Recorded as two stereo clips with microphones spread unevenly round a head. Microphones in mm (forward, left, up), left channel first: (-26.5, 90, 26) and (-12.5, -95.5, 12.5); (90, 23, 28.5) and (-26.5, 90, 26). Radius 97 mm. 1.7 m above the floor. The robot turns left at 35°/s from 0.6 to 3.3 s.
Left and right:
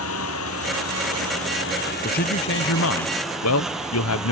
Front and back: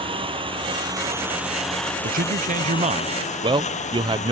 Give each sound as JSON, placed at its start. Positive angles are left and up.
{"t": 0.0, "sound": "a lawn mower", "azimuth_deg": 100}
{"t": 2.0, "sound": "a man speaking", "azimuth_deg": 140}